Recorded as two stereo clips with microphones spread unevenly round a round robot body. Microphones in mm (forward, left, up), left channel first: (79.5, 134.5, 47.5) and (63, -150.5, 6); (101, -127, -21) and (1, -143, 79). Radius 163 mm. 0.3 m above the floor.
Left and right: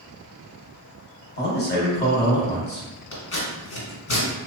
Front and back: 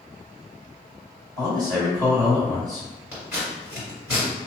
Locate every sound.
1.4 s a man speaking: 65° left, 1.2 m
3.1 s scissors: 70° left, 1.8 m